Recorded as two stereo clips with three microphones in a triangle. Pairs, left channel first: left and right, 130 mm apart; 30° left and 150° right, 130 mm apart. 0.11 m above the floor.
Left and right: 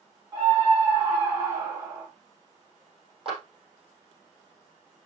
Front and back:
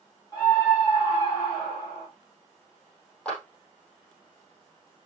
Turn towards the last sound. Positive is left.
turn(degrees=-50)